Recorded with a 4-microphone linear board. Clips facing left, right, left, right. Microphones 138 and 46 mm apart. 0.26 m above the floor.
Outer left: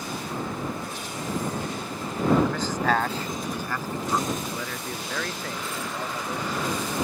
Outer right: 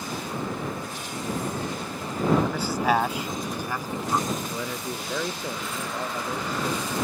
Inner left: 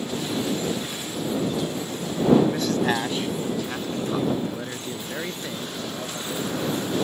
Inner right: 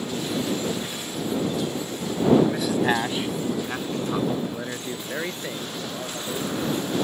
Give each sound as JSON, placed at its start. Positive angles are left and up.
{"t": 2.4, "sound": "a man speaking", "side_deg": -10}